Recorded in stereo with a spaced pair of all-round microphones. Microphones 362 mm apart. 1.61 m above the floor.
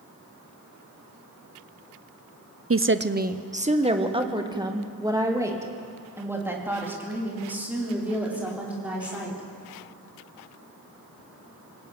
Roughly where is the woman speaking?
Right.